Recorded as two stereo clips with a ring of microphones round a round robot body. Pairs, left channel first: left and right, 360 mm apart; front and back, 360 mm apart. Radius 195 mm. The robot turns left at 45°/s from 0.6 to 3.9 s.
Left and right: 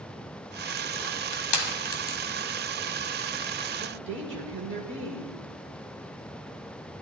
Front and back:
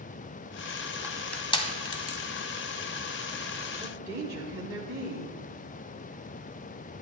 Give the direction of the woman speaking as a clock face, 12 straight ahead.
3 o'clock.